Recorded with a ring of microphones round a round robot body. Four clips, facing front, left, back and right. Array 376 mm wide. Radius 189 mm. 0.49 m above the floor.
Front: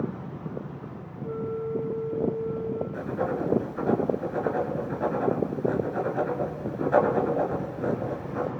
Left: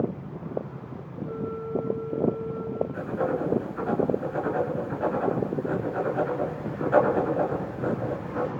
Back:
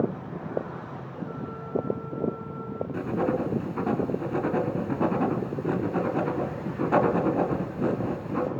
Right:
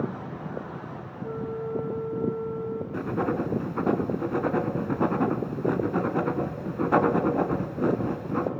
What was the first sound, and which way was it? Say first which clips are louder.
A flute: right 1 dB, front 8 dB; 105° right.